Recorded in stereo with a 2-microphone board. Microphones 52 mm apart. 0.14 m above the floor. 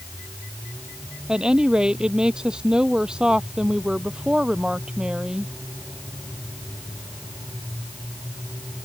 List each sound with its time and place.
1.3 s a woman speaking: 15° right (ahead or behind)